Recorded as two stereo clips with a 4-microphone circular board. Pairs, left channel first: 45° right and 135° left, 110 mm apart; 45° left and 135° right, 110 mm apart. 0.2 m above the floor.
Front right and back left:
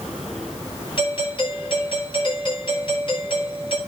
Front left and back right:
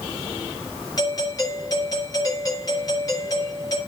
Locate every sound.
1.0 s a doorbell: 10° right, 7.5 m